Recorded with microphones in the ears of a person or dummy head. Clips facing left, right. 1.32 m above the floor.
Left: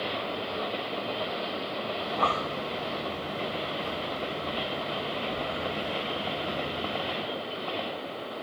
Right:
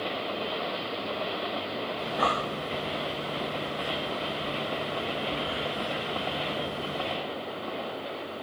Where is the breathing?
10° right (ahead or behind), 1.1 m.